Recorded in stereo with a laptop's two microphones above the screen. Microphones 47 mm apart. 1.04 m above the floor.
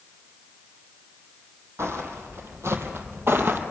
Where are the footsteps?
70° right (ahead or behind), 3 m; by 3.6 s 50° right (ahead or behind), 2 m.